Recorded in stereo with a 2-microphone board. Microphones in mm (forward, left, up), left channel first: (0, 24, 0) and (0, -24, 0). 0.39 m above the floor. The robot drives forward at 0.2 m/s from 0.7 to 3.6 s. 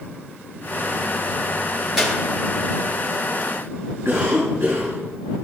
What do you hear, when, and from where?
2.0 s a clap: 10° right (ahead or behind), 4.5 m; by 2.2 s 5° right (ahead or behind), 4.5 m
4.0 s a cough: 75° right (ahead or behind), 3.5 m